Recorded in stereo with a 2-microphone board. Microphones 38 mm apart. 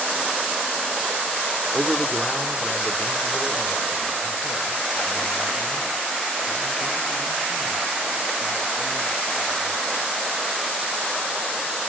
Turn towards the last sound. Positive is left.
turn(degrees=55)  # may be behind; listen again after turning